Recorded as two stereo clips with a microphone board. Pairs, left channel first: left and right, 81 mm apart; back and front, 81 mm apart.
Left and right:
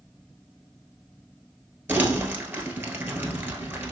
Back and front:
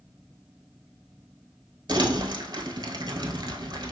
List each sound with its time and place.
1.9 s crumpling: 30° right, 1.1 m